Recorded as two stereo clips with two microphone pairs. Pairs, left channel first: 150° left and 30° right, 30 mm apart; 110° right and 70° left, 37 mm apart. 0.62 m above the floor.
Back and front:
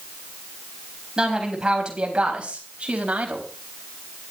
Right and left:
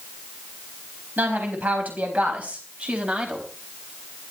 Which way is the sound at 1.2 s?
35° left.